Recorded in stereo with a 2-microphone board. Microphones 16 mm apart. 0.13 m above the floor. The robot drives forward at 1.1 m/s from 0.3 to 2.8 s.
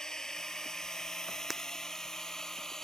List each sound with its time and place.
0.0 s a drone: 35° left (ahead or behind); by 2.9 s 25° left (ahead or behind)
1.5 s breaking glass: 15° right (ahead or behind)